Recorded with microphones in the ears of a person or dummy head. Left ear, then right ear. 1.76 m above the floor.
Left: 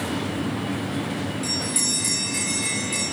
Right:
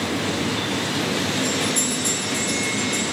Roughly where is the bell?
Left.